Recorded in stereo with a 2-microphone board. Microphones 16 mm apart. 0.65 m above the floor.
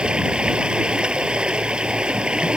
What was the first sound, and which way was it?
Running water, 75° right (ahead or behind).